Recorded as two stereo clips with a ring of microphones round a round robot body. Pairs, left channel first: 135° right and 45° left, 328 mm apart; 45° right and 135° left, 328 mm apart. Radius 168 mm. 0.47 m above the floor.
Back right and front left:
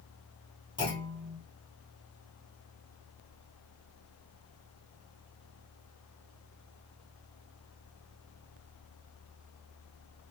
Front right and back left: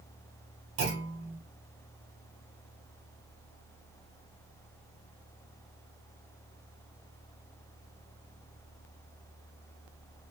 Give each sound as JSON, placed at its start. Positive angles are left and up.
{"t": 0.8, "sound": "a clunk", "azimuth_deg": 150, "distance_m": 1.9}